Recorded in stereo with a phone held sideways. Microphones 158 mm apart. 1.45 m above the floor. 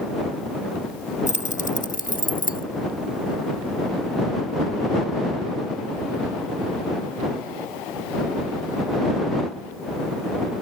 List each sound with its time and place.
1.3 s keys jangling: 50° left (ahead or behind); by 2.6 s 65° left (ahead or behind)